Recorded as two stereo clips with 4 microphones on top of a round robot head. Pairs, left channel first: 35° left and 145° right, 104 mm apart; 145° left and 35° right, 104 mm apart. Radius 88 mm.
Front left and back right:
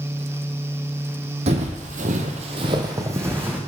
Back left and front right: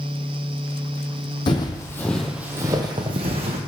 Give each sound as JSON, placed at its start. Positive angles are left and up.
{"t": 1.5, "sound": "footsteps", "azimuth_deg": -170, "distance_m": 1.1}